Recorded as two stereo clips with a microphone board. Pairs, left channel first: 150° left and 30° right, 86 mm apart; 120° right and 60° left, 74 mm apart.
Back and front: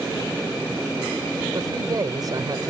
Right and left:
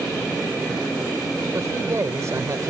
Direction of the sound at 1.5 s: 10° left.